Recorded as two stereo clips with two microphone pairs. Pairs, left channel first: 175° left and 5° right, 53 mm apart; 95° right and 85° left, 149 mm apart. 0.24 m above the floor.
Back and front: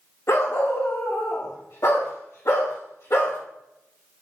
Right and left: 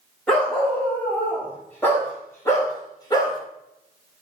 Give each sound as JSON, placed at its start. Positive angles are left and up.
{"t": 0.3, "sound": "a dog barking", "azimuth_deg": -175, "distance_m": 5.5}